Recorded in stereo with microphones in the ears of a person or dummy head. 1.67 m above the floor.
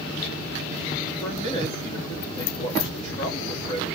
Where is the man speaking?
30° left (ahead or behind), 4.5 m.